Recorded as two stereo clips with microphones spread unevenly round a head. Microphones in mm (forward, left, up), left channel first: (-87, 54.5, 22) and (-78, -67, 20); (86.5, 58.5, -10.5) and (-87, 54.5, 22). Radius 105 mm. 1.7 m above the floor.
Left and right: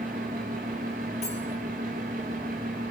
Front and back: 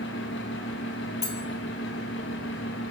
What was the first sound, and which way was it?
A fan, 40° right.